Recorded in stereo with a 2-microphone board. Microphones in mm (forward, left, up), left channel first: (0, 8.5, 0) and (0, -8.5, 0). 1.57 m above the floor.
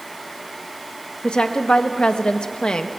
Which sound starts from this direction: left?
A woman speaking, at 1.2 s.